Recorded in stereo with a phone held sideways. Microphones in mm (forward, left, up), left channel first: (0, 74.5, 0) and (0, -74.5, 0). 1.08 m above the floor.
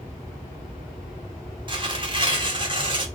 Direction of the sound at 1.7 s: 35° right (ahead or behind).